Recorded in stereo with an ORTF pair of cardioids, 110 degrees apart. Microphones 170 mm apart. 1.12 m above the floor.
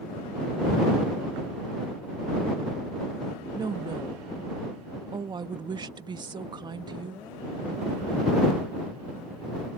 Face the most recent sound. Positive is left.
turn(degrees=-25)